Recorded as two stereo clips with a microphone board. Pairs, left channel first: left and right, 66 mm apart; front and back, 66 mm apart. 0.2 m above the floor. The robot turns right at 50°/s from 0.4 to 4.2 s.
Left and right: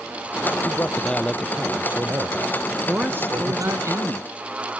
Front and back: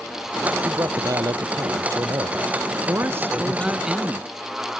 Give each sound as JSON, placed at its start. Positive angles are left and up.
{"t": 0.7, "sound": "a man speaking", "azimuth_deg": 140}
{"t": 2.7, "sound": "a man speaking", "azimuth_deg": -160}